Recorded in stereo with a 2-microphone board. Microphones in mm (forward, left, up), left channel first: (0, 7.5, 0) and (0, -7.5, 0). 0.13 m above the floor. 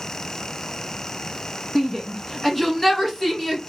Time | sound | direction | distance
1.8 | a shout | 10° left (ahead or behind) | 1.2 m